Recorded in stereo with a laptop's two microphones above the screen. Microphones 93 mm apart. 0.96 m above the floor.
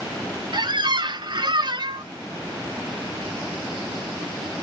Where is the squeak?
50° right (ahead or behind), 0.8 m.